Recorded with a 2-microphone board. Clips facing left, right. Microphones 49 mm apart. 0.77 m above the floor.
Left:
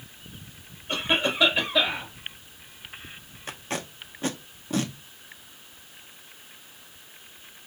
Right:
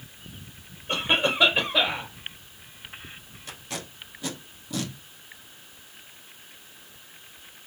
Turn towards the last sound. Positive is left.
turn(degrees=40)  # may be behind; listen again after turning